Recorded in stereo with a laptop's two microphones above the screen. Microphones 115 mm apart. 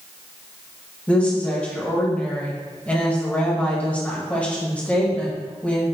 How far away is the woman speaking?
About 0.9 m.